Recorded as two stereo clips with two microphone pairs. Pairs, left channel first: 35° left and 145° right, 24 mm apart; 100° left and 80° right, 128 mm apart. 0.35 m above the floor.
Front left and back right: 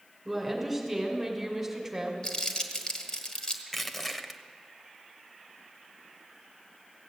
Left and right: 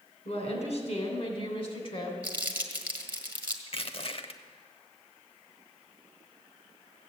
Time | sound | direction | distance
0.2 | a woman speaking | 130° left | 3 m
2.2 | crumpling | 10° right | 1.5 m
3.7 | crushing | 115° left | 0.8 m